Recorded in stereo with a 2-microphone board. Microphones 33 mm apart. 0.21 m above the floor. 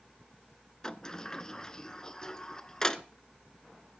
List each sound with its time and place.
0.8 s a sliding door: 20° left (ahead or behind), 0.8 m